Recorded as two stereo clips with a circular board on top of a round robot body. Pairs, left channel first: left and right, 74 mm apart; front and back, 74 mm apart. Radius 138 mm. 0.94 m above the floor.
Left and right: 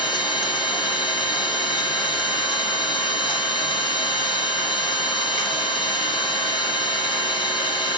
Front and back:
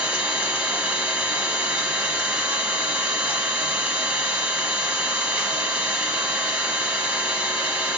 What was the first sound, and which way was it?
An engine running, 110° left.